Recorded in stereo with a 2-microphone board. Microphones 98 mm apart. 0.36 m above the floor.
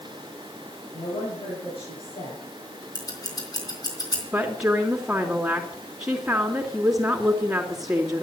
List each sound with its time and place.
0.9 s a woman speaking: 75° left (ahead or behind), 8.5 m; by 2.5 s 70° left (ahead or behind), 9 m
3.0 s scissors: 40° left (ahead or behind), 4 m
4.3 s a woman speaking: 5° right (ahead or behind), 3 m